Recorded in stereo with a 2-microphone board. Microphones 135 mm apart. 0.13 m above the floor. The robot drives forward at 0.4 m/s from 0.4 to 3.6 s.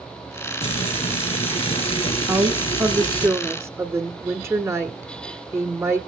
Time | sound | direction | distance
0.6 | frying | 50° left (ahead or behind) | 2.5 m
2.3 | a woman speaking | 20° right (ahead or behind) | 1.4 m